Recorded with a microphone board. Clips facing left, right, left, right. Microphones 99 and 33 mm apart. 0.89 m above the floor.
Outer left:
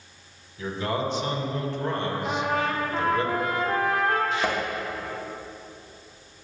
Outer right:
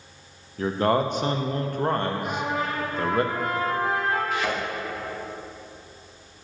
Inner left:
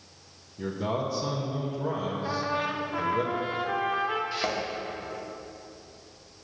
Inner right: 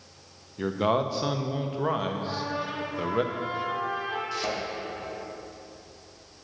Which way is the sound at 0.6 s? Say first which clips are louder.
Outer right 6 dB, inner right 5 dB; 50° right (ahead or behind).